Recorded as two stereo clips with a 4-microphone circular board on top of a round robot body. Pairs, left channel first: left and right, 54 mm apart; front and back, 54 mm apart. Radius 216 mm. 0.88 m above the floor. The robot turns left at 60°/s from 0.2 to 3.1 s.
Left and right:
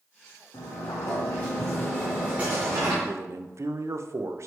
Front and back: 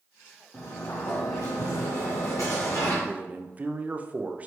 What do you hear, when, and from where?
0.5 s a sliding door: 80° left, 0.7 m; by 2.9 s 60° right, 0.7 m
3.0 s a man speaking: 115° right, 0.7 m